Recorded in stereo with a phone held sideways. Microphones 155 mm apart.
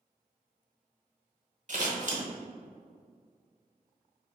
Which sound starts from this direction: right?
Scissors, at 1.7 s.